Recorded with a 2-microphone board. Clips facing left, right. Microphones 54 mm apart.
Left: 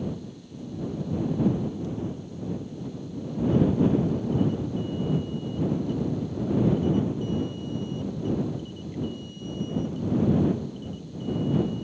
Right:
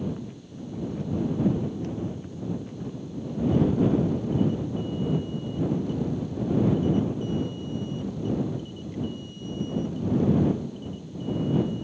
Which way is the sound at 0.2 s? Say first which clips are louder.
Right 1 dB; 60° right (ahead or behind).